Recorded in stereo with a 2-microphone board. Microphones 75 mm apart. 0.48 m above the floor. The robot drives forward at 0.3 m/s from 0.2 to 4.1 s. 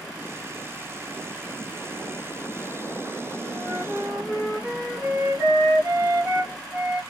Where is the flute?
25° right (ahead or behind), 1.3 m; by 7.0 s 20° right (ahead or behind), 1.5 m.